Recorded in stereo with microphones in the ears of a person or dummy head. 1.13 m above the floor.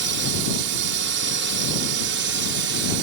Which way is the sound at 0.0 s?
60° right (ahead or behind).